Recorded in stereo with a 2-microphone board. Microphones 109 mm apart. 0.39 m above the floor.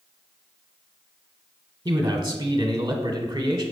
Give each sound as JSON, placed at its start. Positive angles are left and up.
{"t": 1.9, "sound": "a man speaking", "side_deg": -35, "distance_m": 1.1}